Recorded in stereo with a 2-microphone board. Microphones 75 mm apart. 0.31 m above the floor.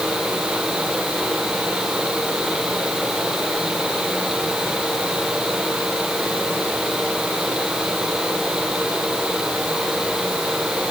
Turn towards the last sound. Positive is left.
No sound to turn to.